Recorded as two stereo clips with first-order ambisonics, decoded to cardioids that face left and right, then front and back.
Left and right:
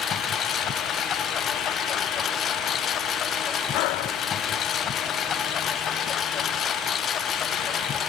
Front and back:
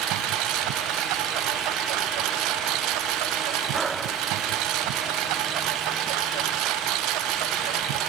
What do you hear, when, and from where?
0.0 s a lawn mower: 150° left
3.7 s breathing: 105° left